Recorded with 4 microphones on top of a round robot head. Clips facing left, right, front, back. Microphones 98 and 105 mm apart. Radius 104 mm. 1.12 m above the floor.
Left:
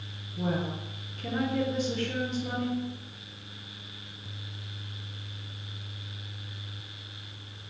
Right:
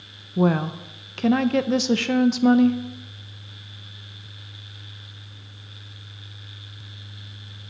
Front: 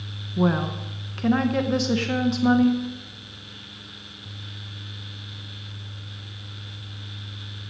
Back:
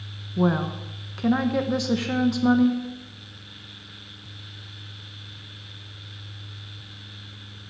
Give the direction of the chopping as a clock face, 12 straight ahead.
I don't hear chopping.